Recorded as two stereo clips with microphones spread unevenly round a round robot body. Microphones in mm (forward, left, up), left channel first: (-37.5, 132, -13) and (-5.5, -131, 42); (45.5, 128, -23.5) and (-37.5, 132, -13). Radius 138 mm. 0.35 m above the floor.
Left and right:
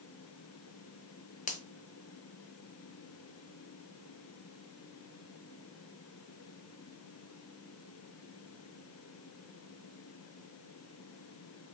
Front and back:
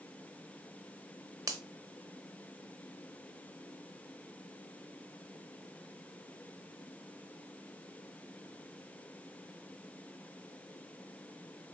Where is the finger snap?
130° left, 0.8 m.